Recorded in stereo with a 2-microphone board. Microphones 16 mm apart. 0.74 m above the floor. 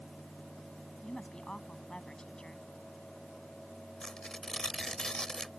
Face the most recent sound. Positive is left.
turn(degrees=55)  # may be behind; listen again after turning